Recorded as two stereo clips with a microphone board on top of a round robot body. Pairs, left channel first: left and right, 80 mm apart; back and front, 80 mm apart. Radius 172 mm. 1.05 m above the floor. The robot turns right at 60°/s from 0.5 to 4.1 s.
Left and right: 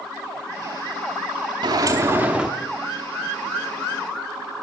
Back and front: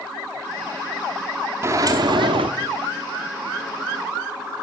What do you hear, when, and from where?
1.6 s a sliding door: 55° right, 0.7 m; by 2.5 s 5° right, 0.7 m